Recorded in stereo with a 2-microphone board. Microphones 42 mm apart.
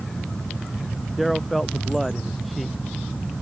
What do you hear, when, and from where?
1.2 s a man speaking: 5° right (ahead or behind)